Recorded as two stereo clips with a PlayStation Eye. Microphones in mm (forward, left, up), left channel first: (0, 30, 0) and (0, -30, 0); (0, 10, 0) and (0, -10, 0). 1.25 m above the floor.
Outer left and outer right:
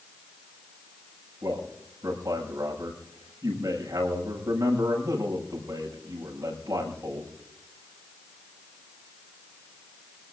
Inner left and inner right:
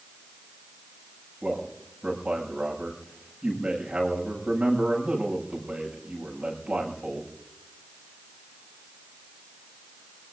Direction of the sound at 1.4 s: 70° right (ahead or behind).